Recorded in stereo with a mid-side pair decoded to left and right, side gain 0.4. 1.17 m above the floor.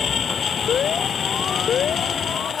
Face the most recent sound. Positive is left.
turn(degrees=65)